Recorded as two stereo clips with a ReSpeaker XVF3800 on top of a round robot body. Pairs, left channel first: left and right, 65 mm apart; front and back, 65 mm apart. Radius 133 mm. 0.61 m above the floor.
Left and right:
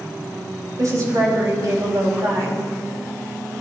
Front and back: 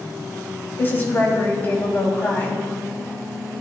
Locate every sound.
0.8 s a woman speaking: 60° right, 4.5 m